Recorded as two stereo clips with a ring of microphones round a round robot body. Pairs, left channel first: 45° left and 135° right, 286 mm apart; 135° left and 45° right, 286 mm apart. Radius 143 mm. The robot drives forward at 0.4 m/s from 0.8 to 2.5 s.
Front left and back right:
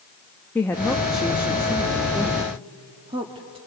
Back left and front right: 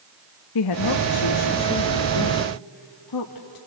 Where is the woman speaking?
130° left, 0.8 m; by 3.6 s 150° left, 1.4 m.